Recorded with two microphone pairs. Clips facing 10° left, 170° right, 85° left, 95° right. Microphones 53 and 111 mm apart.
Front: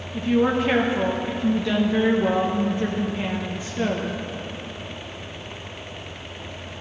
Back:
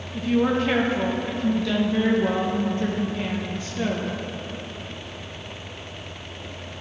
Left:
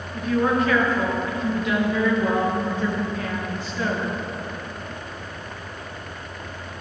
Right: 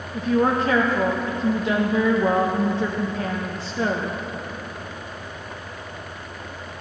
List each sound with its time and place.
0.1 s a woman speaking: 65° right, 0.6 m